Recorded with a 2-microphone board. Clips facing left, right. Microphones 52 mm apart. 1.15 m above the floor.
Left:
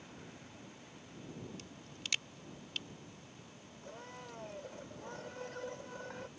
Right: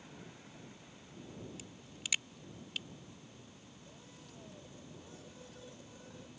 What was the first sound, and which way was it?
A crack, 5° right (ahead or behind).